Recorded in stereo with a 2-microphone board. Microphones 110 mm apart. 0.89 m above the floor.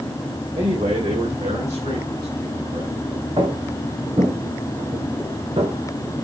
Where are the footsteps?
60° right (ahead or behind), 3 m; by 5.7 s 70° right (ahead or behind), 6 m.